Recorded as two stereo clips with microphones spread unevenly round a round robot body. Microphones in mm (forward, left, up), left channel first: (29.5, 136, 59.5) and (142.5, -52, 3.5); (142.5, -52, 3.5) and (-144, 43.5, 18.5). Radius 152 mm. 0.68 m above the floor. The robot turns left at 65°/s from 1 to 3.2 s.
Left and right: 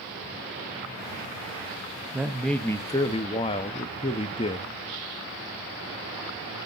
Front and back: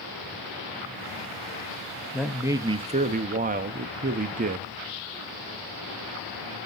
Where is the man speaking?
100° right, 0.5 m; by 4.7 s 170° right, 0.5 m.